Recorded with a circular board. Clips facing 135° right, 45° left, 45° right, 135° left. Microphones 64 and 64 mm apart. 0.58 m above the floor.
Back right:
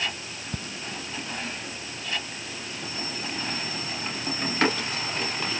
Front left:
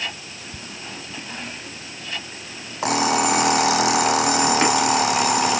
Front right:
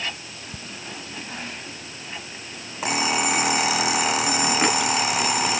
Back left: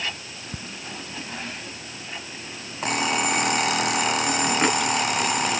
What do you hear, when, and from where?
0.5 s ticking: 155° right
2.8 s an alarm clock: 45° left